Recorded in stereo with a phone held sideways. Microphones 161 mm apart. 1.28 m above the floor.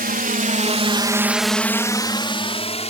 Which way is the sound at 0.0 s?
65° right (ahead or behind).